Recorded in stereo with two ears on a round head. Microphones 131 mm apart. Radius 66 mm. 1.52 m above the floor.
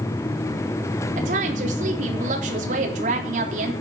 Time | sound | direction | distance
1.2 | a woman speaking | 50° right (ahead or behind) | 3.5 m